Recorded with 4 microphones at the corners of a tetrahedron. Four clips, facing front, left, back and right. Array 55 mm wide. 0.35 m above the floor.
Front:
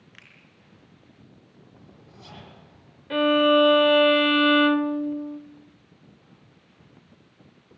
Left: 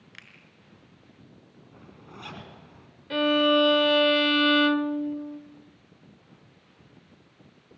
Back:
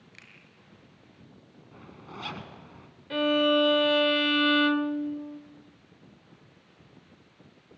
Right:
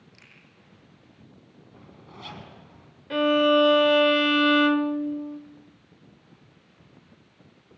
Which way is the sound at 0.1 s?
70° left.